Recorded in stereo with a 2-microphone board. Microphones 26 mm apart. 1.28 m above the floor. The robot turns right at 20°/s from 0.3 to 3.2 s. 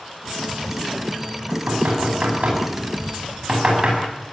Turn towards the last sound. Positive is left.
turn(degrees=-45)  # may be behind; listen again after turning